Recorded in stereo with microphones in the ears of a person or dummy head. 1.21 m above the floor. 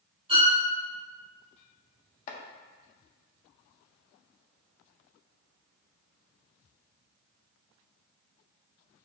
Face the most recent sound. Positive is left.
turn(degrees=50)  # may be behind; listen again after turning